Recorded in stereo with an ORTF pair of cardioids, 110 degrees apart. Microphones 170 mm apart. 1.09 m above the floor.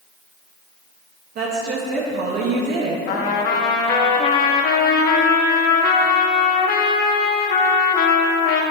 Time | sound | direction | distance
1.4 | a woman speaking | 60° right | 1.5 m
3.1 | a trumpet | 65° left | 1.2 m